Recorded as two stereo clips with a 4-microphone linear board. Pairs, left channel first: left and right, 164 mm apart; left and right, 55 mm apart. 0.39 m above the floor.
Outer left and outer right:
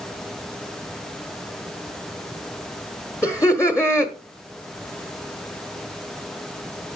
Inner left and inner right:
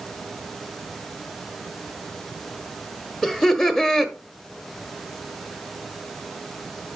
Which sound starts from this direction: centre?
Laughter, at 3.2 s.